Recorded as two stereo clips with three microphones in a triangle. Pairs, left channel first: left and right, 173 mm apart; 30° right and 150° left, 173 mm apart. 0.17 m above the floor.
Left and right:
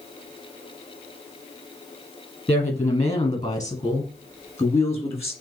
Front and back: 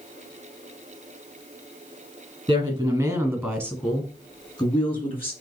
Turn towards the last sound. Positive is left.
turn(degrees=20)